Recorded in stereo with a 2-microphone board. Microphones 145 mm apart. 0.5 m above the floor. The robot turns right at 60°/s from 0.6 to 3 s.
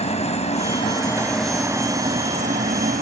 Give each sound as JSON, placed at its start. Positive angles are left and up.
{"t": 0.0, "sound": "a helicopter", "azimuth_deg": 130}